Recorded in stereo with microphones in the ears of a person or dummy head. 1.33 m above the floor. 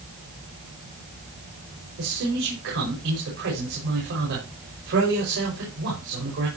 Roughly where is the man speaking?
Right.